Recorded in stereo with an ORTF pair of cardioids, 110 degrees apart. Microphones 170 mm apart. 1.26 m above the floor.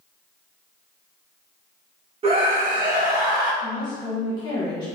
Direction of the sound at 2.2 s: 35° right.